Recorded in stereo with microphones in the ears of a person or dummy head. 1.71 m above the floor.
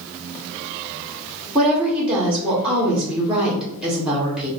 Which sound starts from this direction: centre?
A woman speaking, at 1.6 s.